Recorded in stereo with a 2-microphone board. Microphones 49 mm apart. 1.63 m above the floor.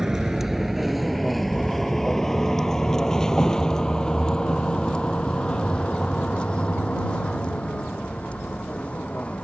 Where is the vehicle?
10° right (ahead or behind); by 9.4 s 25° left (ahead or behind).